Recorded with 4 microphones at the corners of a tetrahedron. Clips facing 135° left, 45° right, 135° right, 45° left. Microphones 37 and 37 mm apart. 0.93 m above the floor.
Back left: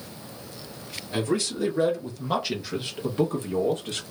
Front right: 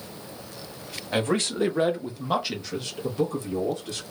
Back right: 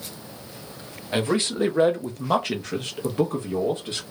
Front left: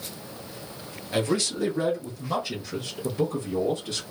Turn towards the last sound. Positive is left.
turn(degrees=170)